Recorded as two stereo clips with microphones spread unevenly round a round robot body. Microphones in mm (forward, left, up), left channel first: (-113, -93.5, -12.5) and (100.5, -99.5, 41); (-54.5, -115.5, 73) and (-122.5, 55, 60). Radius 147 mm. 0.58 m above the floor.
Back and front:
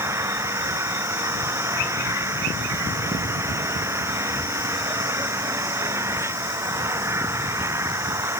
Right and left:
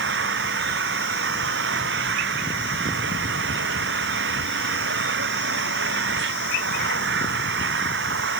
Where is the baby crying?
No baby crying in this recording.